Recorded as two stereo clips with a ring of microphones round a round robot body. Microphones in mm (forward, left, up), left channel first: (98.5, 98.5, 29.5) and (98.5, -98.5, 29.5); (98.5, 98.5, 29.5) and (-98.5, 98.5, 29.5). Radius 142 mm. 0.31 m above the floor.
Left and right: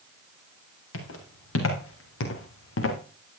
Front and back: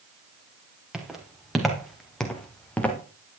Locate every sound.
0.9 s footsteps: 95° left, 4 m; by 3.0 s 80° left, 2.5 m